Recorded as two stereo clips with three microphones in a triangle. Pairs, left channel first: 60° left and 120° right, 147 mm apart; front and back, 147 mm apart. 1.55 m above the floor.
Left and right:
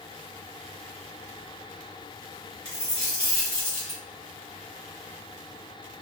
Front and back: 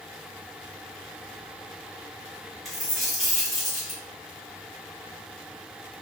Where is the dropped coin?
90° left, 1.5 m.